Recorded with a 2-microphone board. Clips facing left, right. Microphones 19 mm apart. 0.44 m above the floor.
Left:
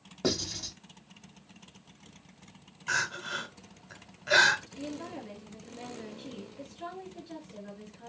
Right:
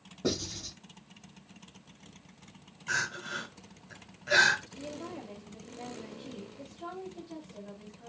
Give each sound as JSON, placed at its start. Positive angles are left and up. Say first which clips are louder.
{"t": 0.2, "sound": "writing", "louder": "left 2 dB", "side_deg": 60, "distance_m": 2.0}
{"t": 2.9, "sound": "crying", "louder": "left 2 dB", "side_deg": 25, "distance_m": 1.0}
{"t": 4.8, "sound": "a woman speaking", "louder": "left 2 dB", "side_deg": 65, "distance_m": 3.0}